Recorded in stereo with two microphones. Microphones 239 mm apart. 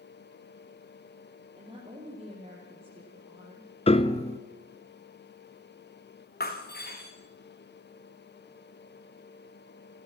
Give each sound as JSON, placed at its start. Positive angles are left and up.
{"t": 1.6, "sound": "a woman speaking", "side_deg": -25, "distance_m": 4.5}
{"t": 3.9, "sound": "a piano", "side_deg": 25, "distance_m": 1.0}
{"t": 6.4, "sound": "breaking glass", "side_deg": 40, "distance_m": 3.5}